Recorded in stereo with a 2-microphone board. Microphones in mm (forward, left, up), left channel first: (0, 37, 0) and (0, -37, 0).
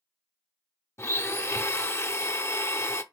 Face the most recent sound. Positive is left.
turn(degrees=35)  # may be behind; listen again after turning